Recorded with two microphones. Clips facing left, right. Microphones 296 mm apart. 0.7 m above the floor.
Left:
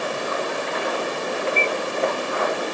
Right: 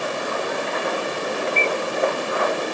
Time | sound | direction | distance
1.6 | a bird | 10° left (ahead or behind) | ?